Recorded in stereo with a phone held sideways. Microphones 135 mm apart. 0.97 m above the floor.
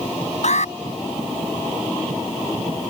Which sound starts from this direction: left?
An alarm, at 0.4 s.